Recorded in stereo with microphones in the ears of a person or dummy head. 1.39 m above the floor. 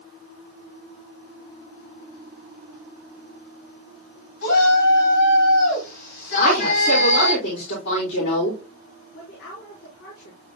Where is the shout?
65° left (ahead or behind), 6 m.